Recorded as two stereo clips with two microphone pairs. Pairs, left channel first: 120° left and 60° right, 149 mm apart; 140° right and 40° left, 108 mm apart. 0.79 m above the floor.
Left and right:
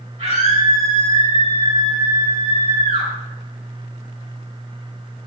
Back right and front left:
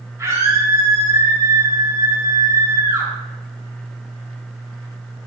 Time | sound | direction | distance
0.2 | a scream | 20° right | 4 m